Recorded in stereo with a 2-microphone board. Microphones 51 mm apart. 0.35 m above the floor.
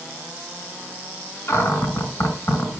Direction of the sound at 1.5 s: 50° left (ahead or behind).